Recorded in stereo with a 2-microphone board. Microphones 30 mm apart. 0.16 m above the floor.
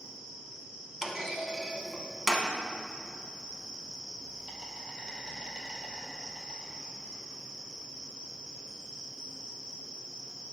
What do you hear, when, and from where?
0.0 s an insect: 30° right (ahead or behind), 1.3 m
1.0 s a clunk: 15° right (ahead or behind), 0.9 m